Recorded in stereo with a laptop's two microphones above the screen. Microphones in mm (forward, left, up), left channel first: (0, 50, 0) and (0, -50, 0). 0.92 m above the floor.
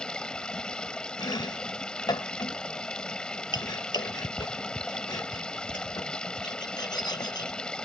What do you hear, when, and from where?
0.0 s running water: 10° left (ahead or behind)
1.2 s chopping: 45° left (ahead or behind)